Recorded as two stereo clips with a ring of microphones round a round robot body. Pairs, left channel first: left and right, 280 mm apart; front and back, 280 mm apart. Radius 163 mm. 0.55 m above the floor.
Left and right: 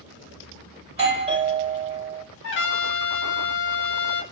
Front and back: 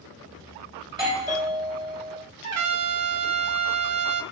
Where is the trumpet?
140° left, 0.6 m.